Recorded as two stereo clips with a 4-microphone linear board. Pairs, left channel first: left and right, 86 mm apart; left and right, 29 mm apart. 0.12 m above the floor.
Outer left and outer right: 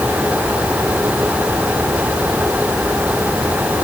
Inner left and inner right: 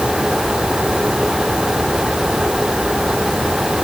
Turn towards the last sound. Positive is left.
No sound to turn to.